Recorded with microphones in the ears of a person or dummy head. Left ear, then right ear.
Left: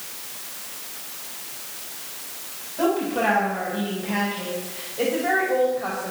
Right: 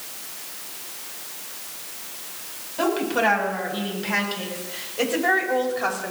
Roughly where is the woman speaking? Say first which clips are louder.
Right 1 dB; right.